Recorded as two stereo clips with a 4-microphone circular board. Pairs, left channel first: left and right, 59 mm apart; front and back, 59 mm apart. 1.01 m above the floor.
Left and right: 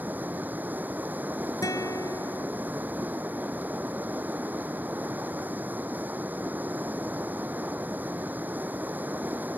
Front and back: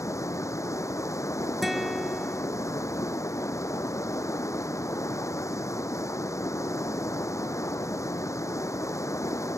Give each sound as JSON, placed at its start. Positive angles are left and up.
{"t": 0.0, "sound": "running water", "azimuth_deg": -30}
{"t": 1.6, "sound": "a guitar", "azimuth_deg": 90}